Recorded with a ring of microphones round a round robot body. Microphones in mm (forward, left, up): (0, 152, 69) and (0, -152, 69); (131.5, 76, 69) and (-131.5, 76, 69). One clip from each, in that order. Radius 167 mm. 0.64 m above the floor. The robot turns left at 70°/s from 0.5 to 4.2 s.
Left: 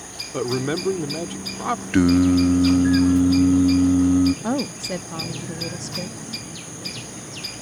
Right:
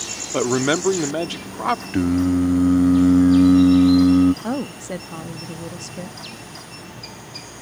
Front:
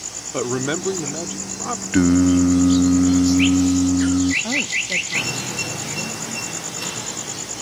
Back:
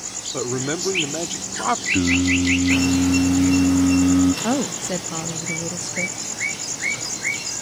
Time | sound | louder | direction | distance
0.3 | a man speaking | right 5 dB, front 3 dB | 65° right | ?
1.9 | singing | left 3 dB, front 7 dB | 30° left | ?
4.4 | a woman speaking | left 2 dB, front 2 dB | 175° right | ?